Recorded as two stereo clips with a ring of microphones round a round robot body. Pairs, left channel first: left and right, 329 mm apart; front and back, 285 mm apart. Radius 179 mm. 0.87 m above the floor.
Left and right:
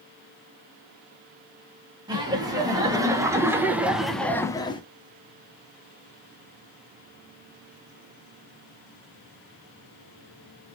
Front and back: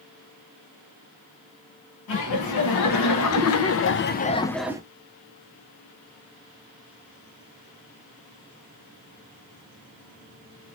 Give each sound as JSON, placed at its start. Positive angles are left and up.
{"t": 2.1, "sound": "laughter", "azimuth_deg": -15, "distance_m": 1.5}